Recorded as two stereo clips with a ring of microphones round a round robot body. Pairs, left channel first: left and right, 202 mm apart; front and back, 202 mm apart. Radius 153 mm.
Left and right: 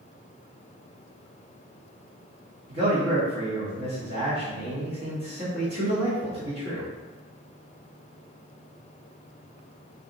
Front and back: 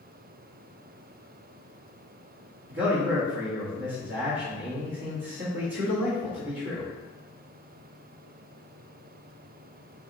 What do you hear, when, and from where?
2.7 s a man speaking: 140° right, 1.1 m